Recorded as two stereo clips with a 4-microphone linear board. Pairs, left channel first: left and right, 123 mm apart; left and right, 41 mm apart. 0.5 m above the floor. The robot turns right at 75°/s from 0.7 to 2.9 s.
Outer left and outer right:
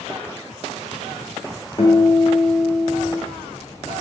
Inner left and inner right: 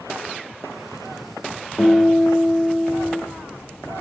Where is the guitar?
85° left, 0.9 m; by 3.2 s 165° left, 0.9 m.